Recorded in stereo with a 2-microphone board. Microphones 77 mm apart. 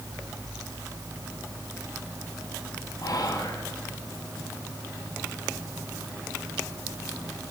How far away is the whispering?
About 3 m.